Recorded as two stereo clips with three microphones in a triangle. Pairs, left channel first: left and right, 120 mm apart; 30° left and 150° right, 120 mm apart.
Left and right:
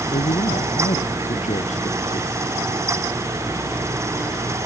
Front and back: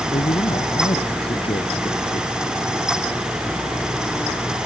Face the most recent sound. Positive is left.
turn(degrees=70)